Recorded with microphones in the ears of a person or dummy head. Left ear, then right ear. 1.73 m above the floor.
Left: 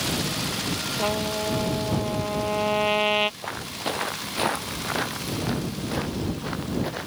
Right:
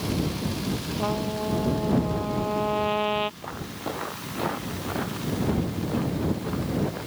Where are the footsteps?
60° left (ahead or behind); by 7.1 s 80° left.